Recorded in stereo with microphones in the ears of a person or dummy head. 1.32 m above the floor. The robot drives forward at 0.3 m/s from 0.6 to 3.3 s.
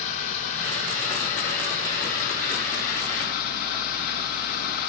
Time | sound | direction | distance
0.0 | running water | 40° left (ahead or behind) | 3 m